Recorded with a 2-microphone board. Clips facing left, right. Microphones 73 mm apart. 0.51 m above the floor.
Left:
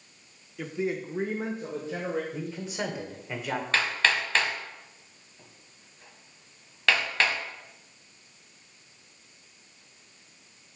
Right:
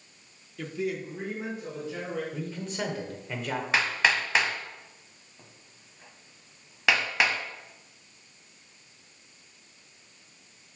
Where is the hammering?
10° right (ahead or behind), 1.0 m.